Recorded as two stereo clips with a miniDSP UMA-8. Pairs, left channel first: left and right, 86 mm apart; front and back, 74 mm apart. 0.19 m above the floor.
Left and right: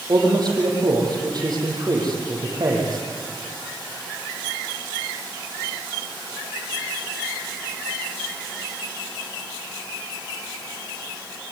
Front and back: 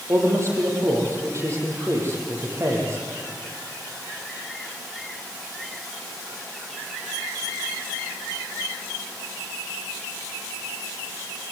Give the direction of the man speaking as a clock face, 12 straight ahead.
4 o'clock.